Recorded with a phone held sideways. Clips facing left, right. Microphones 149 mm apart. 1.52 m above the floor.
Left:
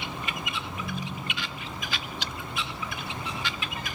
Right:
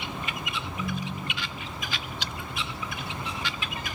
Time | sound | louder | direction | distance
0.6 | a ringtone | right 2 dB | 20° right (ahead or behind) | 1.6 m